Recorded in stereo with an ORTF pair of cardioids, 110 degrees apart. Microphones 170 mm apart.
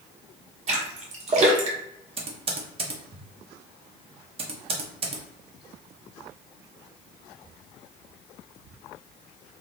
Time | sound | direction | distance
0.7 | a splash | 45° right | 1.2 m
2.2 | typing on a keyboard | 35° right | 1.0 m